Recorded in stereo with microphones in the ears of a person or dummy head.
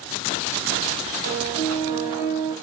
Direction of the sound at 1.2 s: 45° right (ahead or behind).